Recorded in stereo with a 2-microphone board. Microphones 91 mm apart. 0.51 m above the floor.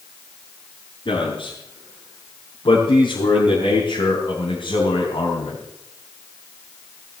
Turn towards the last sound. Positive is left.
turn(degrees=75)  # may be behind; listen again after turning